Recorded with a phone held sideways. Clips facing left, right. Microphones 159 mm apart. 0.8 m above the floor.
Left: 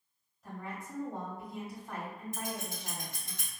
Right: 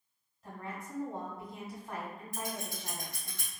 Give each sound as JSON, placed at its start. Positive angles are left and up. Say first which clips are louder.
{"t": 0.4, "sound": "a woman speaking", "louder": "even", "side_deg": 0, "distance_m": 1.8}
{"t": 2.3, "sound": "scissors", "louder": "right 2 dB", "side_deg": 20, "distance_m": 1.4}